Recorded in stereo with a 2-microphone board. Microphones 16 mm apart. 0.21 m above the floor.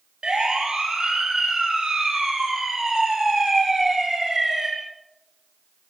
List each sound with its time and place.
0.2 s a siren: 70° right (ahead or behind), 6.5 m; by 4.7 s 30° right (ahead or behind), 8 m